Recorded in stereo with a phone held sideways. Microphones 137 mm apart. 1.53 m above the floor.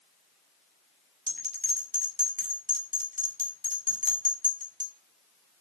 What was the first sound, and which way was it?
A bell, 75° right (ahead or behind).